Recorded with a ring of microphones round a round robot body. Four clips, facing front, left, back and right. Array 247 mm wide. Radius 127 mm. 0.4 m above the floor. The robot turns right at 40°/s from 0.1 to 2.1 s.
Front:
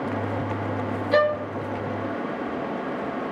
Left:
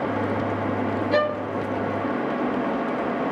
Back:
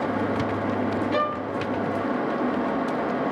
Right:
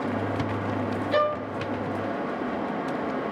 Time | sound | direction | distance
1.1 | a violin | 20° left | 2.5 m